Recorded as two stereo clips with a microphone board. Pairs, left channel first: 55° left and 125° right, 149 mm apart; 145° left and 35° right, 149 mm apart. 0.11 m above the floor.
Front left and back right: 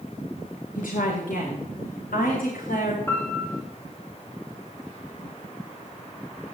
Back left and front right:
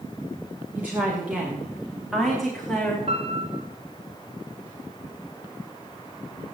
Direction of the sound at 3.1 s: 10° right.